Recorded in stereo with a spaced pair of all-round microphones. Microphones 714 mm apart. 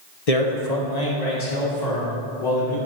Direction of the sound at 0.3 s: 55° left (ahead or behind).